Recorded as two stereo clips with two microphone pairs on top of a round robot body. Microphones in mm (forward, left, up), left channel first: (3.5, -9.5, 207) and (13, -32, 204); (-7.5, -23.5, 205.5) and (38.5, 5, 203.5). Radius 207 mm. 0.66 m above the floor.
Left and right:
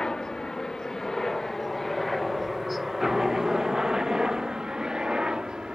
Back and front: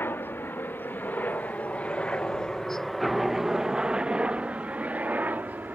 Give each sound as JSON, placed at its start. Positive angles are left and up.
{"t": 0.0, "sound": "a helicopter", "azimuth_deg": 170}